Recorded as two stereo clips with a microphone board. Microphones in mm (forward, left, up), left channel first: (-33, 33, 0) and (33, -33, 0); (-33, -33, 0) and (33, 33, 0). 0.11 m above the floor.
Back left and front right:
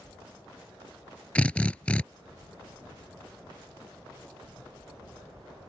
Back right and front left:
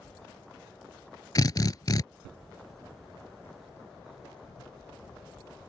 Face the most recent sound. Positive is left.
turn(degrees=-155)